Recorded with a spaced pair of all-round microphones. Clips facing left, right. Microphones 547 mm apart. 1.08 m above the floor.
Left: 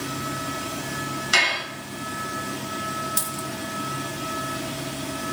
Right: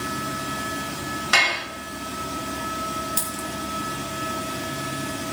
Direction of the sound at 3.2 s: 45° left (ahead or behind).